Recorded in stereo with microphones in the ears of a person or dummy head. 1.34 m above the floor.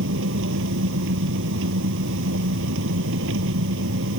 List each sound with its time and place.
0.0 s an engine running: 70° right (ahead or behind)